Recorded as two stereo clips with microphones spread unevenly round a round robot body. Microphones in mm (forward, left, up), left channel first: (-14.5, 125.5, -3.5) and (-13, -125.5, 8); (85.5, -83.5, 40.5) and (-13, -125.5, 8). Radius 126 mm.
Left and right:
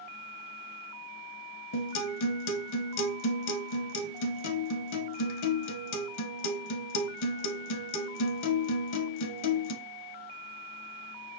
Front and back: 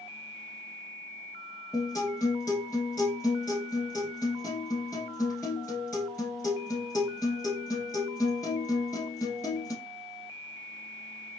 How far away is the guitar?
About 1.1 m.